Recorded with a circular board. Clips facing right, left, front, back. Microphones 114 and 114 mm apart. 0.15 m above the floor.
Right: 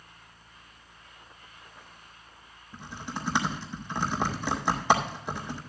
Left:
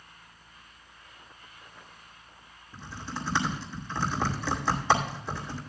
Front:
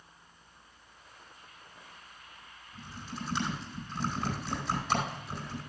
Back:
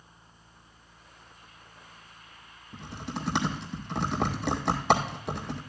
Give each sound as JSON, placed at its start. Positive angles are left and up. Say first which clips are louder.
{"t": 2.7, "sound": "typing on a keyboard", "louder": "even, back 5 dB", "azimuth_deg": -165, "distance_m": 2.0}